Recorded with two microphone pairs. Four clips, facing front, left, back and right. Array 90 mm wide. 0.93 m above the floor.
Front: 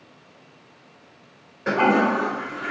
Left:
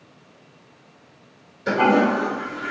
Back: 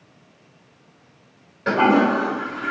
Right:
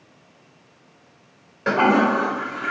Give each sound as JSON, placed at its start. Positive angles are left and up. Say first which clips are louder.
{"t": 1.7, "sound": "a toilet flushing", "louder": "even, back 2 dB", "azimuth_deg": -90, "distance_m": 1.1}